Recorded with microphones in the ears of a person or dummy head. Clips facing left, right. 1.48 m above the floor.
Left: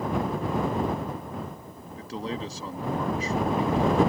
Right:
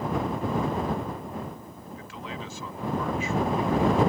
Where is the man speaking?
35° left (ahead or behind).